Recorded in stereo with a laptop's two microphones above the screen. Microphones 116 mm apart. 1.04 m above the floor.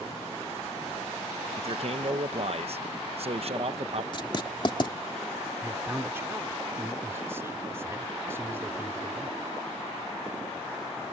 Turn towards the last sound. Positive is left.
turn(degrees=-20)  # may be behind; listen again after turning